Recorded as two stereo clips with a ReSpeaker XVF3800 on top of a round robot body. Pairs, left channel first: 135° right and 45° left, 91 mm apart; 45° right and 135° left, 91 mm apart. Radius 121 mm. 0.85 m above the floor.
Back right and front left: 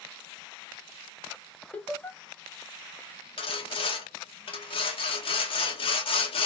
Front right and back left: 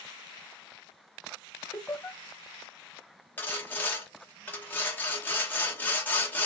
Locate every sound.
1.7 s laughter: 85° right, 0.9 m
3.4 s sawing: 115° right, 0.9 m